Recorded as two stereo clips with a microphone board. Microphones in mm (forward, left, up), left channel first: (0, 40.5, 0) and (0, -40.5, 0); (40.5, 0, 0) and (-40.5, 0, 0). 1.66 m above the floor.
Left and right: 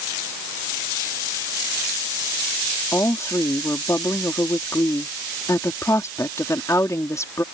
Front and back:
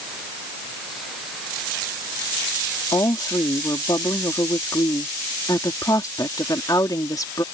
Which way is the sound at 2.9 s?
40° left.